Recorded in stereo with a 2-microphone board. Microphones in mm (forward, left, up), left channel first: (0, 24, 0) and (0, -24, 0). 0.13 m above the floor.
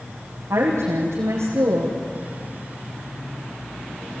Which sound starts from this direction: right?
A woman speaking, at 0.5 s.